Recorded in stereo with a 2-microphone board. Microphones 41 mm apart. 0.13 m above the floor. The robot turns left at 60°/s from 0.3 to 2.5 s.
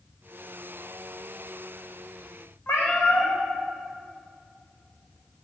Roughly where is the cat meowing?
Left.